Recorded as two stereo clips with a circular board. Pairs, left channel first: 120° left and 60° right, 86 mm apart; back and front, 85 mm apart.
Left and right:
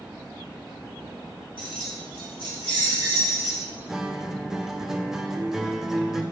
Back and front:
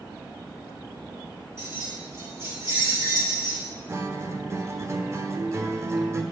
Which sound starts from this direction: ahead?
A guitar, at 3.9 s.